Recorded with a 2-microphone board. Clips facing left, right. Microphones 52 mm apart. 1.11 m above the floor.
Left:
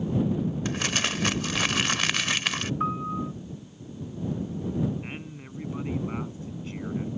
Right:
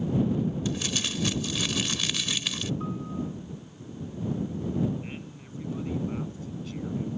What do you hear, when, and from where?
0.7 s crumpling: 60° left (ahead or behind)
2.8 s a piano: 60° left (ahead or behind)
5.0 s a man speaking: 35° left (ahead or behind)